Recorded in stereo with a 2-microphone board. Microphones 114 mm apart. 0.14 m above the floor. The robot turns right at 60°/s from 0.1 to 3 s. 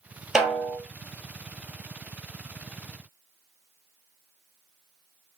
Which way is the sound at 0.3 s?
5° right (ahead or behind).